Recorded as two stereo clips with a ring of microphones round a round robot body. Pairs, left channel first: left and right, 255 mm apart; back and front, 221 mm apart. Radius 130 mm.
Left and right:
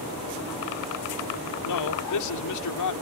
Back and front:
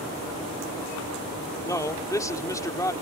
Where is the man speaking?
105° left.